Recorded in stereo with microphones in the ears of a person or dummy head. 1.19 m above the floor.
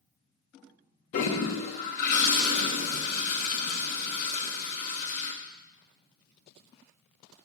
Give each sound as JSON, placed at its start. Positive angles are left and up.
{"t": 1.1, "sound": "a toilet flushing", "side_deg": 45, "distance_m": 0.9}